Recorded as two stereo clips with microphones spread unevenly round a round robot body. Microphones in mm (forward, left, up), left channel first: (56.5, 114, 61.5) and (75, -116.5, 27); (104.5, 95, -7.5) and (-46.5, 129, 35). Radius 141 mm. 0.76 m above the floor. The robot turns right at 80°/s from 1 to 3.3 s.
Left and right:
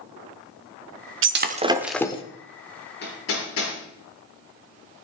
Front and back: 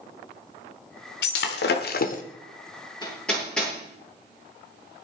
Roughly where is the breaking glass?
Ahead right.